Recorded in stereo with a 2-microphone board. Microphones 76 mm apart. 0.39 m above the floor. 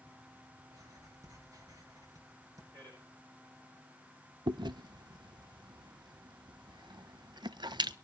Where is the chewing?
80° right, 0.5 m.